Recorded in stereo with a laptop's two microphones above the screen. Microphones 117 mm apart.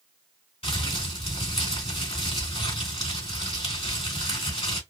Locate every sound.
0.6 s crumpling: 65° left (ahead or behind), 2.5 m